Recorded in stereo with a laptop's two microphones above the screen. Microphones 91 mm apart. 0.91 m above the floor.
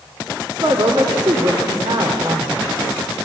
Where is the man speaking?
75° right (ahead or behind), 2.5 m.